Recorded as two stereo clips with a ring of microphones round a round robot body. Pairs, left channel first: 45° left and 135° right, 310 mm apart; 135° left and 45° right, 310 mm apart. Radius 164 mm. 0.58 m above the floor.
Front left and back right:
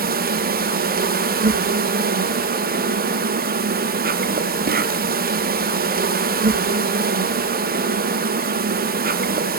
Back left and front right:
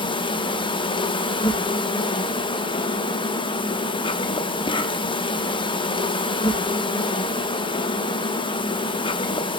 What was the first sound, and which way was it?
An insect, 165° right.